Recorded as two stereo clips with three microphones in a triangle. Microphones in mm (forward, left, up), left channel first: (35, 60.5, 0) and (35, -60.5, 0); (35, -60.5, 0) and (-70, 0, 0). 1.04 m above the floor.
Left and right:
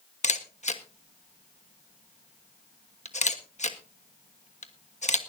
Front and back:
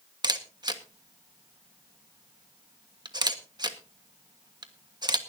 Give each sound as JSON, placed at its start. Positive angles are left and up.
{"t": 0.2, "sound": "a camera shutter", "azimuth_deg": 100, "distance_m": 1.3}